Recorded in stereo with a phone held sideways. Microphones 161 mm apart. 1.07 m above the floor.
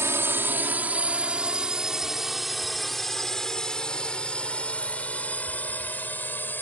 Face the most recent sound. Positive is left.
turn(degrees=10)  # may be behind; listen again after turning